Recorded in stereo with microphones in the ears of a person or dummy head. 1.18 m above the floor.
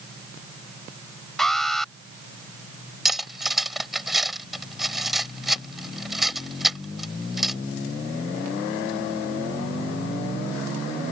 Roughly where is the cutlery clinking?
Centre.